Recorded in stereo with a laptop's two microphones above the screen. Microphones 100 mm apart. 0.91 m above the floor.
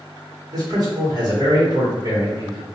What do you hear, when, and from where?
0.5 s a man speaking: 40° right (ahead or behind), 1.1 m